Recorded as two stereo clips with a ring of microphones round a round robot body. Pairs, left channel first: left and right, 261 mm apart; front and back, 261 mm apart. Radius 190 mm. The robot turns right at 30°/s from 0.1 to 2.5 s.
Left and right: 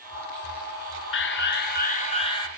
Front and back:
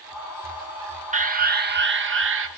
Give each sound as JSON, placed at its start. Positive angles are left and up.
{"t": 1.1, "sound": "an alarm", "azimuth_deg": 125, "distance_m": 2.0}